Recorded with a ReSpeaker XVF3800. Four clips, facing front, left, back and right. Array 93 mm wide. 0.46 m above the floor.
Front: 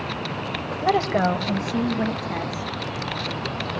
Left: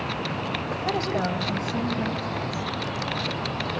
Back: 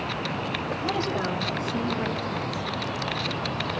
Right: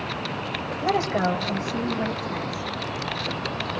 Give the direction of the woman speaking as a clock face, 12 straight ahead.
1 o'clock.